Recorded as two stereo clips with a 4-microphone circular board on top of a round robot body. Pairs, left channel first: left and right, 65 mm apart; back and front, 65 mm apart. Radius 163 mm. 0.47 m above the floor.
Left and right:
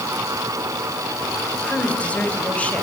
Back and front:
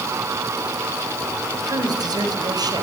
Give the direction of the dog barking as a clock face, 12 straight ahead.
No dog barking in this recording.